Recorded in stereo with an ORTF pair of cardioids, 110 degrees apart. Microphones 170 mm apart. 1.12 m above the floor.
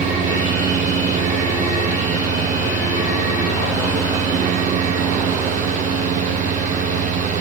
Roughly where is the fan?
Ahead right.